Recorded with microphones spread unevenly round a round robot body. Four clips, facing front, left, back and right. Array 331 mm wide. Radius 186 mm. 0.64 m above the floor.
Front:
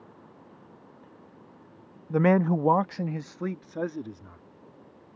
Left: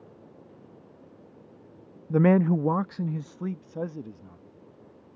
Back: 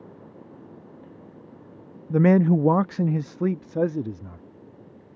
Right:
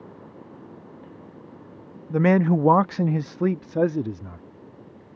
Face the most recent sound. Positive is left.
turn(degrees=-110)